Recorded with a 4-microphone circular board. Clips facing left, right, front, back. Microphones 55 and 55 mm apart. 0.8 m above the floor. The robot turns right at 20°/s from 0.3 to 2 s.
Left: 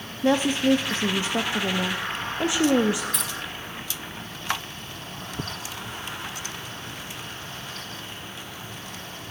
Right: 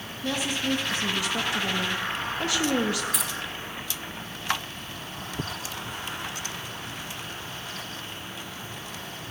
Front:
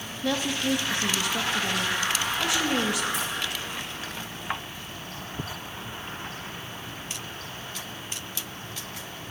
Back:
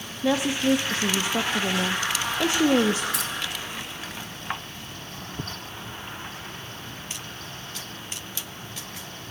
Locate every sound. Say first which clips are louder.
0.2 s a woman speaking: left 8 dB, back 4 dB; 110° left, 0.6 m; by 3.0 s 145° left, 0.6 m
3.1 s keys jangling: even, even; straight behind, 1.1 m